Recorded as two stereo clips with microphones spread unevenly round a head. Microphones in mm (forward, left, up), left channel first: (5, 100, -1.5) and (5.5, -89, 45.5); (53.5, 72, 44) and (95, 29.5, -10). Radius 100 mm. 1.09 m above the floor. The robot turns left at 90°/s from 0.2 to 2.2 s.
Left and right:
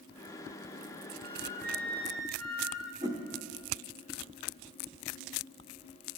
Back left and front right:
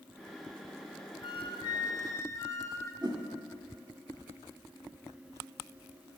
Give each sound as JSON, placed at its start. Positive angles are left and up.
{"t": 1.2, "sound": "a flute", "azimuth_deg": 120, "distance_m": 0.7}
{"t": 3.0, "sound": "a whoosh", "azimuth_deg": -135, "distance_m": 0.5}